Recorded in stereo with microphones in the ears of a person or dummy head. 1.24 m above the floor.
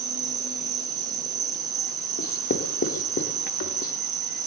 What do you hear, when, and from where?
0.0 s an insect: 20° right (ahead or behind), 2.5 m
2.2 s writing: 50° left (ahead or behind), 1.6 m